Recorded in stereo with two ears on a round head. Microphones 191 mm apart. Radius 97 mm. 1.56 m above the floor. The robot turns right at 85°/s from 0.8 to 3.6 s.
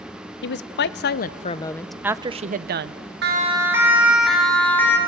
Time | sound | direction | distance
0.4 | a woman speaking | 85° left | 0.6 m
3.2 | a siren | 55° right (ahead or behind) | 2.5 m